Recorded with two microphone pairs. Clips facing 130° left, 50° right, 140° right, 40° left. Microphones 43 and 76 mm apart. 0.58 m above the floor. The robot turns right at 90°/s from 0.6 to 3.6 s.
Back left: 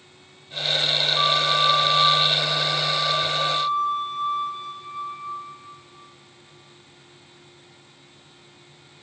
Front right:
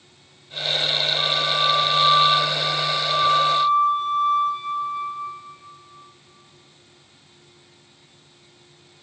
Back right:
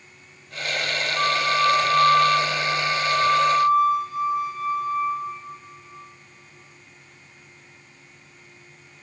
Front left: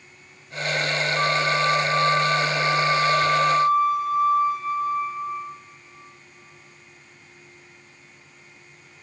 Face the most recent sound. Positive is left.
turn(degrees=-10)